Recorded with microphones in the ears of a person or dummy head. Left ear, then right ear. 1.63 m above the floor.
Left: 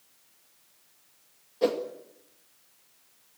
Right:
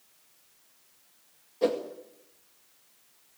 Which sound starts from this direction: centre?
A whoosh, at 1.6 s.